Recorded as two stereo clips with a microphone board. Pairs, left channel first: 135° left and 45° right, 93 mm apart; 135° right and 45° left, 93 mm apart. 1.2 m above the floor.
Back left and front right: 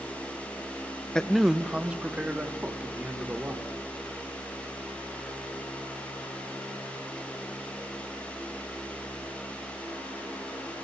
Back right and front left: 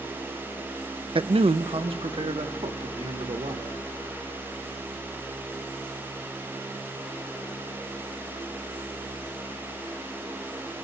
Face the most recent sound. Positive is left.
turn(degrees=25)